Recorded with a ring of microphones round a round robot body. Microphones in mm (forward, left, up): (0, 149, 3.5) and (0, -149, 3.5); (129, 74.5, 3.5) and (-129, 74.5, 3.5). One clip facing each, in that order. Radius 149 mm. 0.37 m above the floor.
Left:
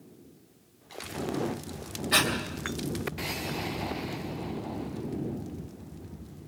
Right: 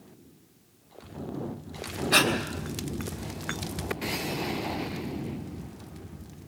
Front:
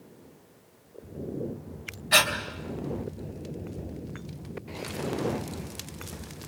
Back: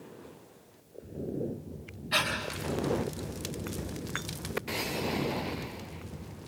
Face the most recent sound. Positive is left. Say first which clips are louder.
# right 4 dB, front 6 dB
turn(degrees=15)